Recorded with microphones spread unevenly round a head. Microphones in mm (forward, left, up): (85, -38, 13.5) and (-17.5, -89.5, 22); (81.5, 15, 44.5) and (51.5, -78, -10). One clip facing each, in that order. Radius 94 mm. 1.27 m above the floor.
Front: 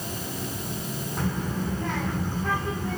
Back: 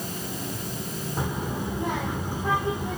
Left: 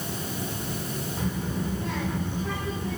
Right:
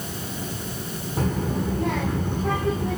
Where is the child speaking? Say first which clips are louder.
Front 1 dB, right 7 dB; 80° right, 2.5 m.